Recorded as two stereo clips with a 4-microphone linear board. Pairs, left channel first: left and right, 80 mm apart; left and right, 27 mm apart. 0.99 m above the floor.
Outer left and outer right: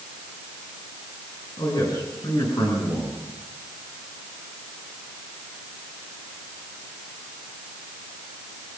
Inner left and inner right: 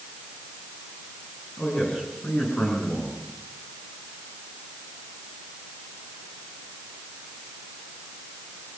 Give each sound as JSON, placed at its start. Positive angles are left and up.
{"t": 1.6, "sound": "a man speaking", "side_deg": 55, "distance_m": 9.0}